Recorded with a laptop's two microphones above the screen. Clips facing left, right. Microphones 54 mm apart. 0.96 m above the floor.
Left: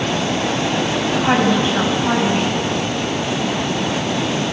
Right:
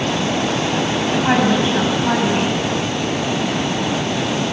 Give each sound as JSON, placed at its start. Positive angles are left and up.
{"t": 1.2, "sound": "a woman speaking", "side_deg": -5, "distance_m": 5.5}